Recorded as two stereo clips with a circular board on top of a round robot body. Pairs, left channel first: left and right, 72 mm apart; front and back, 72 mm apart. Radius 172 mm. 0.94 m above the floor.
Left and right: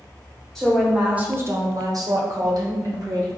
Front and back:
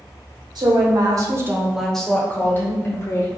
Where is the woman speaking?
175° left, 1.2 m; by 3.3 s 50° right, 1.9 m.